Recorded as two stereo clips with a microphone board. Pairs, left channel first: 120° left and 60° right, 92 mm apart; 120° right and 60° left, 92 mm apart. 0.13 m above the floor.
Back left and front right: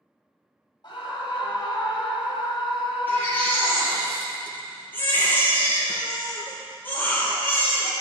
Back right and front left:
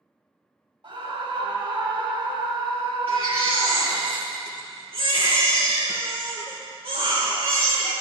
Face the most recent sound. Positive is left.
turn(degrees=50)